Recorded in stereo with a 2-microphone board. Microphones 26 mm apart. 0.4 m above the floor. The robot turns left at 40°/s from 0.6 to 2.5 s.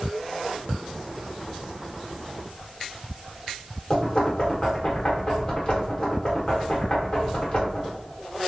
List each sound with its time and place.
3.9 s knocking: 30° left (ahead or behind), 1.1 m